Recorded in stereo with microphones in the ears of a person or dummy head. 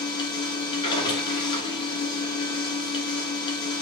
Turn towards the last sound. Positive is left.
turn(degrees=25)  # may be behind; listen again after turning